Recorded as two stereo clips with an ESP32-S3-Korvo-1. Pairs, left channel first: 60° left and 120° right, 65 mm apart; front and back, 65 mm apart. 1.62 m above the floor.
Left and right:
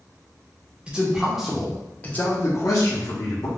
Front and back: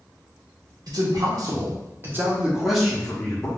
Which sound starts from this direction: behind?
A man speaking, at 0.9 s.